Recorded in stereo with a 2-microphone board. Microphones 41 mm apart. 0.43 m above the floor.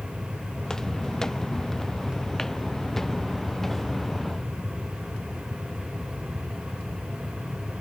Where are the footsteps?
10° left (ahead or behind); by 4.5 s 5° left (ahead or behind).